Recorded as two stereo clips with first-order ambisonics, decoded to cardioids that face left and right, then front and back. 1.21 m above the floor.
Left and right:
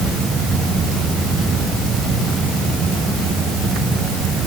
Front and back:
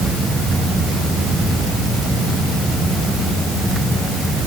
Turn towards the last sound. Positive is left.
No sound to turn to.